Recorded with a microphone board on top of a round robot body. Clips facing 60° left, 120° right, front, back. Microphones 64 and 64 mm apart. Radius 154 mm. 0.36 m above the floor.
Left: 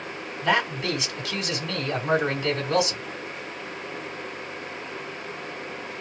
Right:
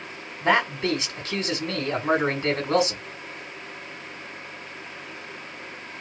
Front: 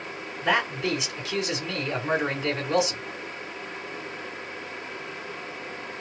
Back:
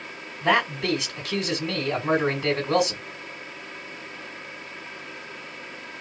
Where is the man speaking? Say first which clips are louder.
Right 2 dB, back 3 dB; 165° right, 2.5 m.